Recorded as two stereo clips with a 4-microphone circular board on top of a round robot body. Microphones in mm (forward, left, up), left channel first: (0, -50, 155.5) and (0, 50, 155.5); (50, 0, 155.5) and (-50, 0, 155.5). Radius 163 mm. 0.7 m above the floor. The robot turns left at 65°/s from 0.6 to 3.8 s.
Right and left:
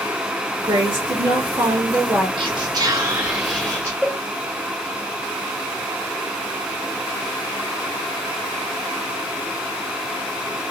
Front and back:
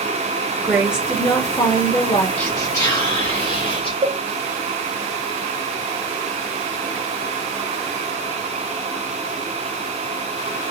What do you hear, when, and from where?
0.6 s a woman speaking: 115° left, 0.9 m; by 2.3 s 10° left, 0.9 m
2.4 s whispering: 90° left, 0.8 m; by 3.9 s 5° right, 0.8 m
4.0 s a cowbell: 170° right, 0.8 m